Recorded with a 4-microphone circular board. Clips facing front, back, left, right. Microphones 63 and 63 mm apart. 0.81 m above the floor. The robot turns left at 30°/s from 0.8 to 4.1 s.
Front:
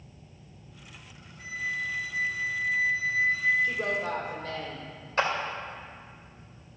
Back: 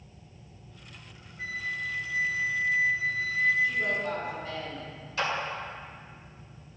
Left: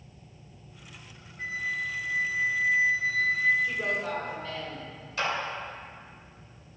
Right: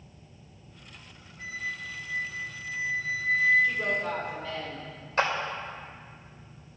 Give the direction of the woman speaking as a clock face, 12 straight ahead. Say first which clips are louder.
Even, right 2 dB; 11 o'clock.